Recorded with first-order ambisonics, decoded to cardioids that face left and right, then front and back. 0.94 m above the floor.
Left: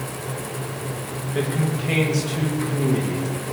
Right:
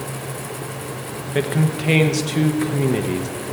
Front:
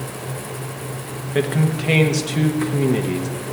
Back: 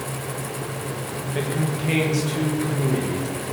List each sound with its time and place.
1.4 s a man speaking: 50° right, 0.9 m